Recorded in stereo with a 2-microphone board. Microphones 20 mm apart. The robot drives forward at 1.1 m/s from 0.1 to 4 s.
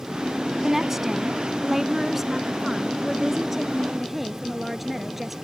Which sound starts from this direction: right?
A woman speaking, at 0.6 s.